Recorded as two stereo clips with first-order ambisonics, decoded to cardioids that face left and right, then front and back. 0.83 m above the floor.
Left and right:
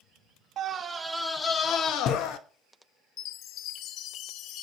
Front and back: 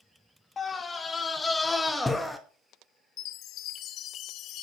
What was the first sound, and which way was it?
A scream, 60° right.